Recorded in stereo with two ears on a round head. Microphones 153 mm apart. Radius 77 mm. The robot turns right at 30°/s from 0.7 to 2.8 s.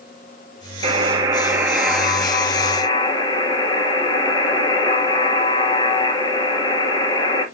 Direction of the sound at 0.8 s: 35° right.